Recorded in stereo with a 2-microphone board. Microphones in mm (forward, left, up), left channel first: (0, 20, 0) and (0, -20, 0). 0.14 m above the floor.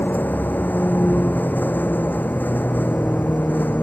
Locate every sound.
0.0 s a vehicle: 50° left (ahead or behind)